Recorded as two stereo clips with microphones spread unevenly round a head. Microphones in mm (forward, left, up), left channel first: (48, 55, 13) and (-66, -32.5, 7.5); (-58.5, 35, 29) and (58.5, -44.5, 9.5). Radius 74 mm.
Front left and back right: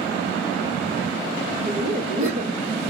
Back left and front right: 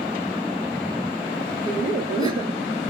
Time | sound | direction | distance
1.7 | laughter | 100° right | 1.2 m